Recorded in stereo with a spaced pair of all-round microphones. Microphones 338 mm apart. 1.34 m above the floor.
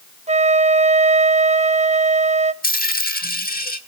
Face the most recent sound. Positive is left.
turn(degrees=25)  # may be behind; listen again after turning